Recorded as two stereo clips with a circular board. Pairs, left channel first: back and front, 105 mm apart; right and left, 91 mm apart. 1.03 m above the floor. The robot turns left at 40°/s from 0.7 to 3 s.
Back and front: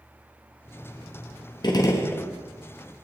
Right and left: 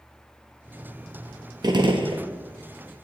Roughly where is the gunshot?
Behind left.